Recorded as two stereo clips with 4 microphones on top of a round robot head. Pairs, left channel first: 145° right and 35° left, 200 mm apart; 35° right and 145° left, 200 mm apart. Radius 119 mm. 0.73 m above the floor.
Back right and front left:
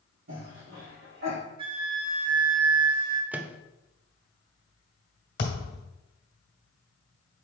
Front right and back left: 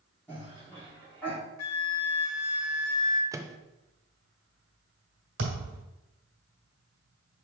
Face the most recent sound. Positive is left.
turn(degrees=170)